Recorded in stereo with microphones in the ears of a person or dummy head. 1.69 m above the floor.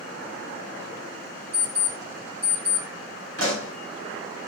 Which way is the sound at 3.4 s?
85° right.